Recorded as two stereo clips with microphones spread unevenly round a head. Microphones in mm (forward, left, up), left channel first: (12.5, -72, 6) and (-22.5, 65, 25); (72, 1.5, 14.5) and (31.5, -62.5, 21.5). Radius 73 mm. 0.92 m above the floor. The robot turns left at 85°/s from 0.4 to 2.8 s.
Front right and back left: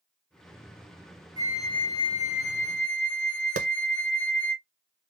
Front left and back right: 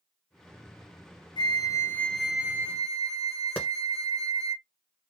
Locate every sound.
1.4 s a flute: 40° left, 0.5 m; by 4.6 s 80° right, 0.5 m
3.6 s a clap: 120° left, 0.7 m